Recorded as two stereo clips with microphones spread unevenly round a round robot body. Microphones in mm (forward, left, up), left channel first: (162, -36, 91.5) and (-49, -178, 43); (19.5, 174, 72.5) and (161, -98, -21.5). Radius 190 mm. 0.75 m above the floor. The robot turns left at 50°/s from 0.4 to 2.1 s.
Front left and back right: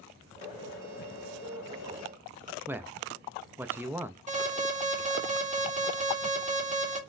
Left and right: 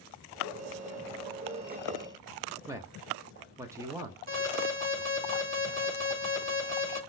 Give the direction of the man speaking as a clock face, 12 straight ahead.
3 o'clock.